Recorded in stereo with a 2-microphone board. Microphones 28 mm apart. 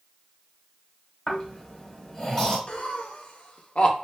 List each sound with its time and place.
1.3 s snoring: 25° left (ahead or behind), 1.7 m
2.7 s laughter: 45° left (ahead or behind), 0.7 m